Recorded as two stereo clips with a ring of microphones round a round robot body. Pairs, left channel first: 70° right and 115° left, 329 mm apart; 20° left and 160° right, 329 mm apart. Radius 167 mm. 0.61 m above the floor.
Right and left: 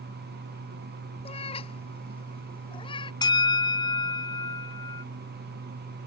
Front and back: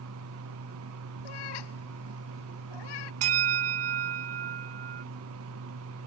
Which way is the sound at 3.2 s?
145° right.